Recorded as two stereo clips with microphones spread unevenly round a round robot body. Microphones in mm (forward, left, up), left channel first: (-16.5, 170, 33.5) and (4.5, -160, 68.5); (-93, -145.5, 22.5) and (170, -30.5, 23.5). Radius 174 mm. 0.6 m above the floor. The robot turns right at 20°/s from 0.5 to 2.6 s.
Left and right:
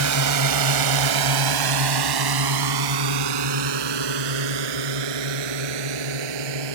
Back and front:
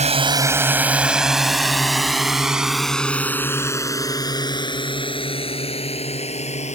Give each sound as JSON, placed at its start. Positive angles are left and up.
{"t": 0.0, "sound": "a drone", "azimuth_deg": -45}